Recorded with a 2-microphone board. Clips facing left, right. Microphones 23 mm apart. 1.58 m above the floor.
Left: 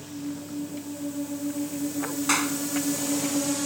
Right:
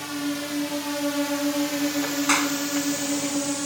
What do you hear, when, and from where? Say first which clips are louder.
0.0 s a drone: right 7 dB; 80° right; by 3.7 s 5° right (ahead or behind)
2.3 s a clap: right 2 dB; 10° right (ahead or behind)